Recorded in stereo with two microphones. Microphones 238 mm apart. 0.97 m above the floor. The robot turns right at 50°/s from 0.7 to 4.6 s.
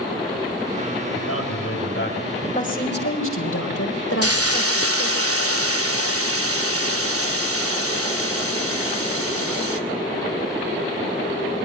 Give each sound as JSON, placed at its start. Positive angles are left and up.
{"t": 1.1, "sound": "a man speaking", "azimuth_deg": 85, "distance_m": 7.0}
{"t": 2.4, "sound": "a woman speaking", "azimuth_deg": 25, "distance_m": 4.5}
{"t": 4.2, "sound": "a hiss", "side_deg": -85, "distance_m": 2.0}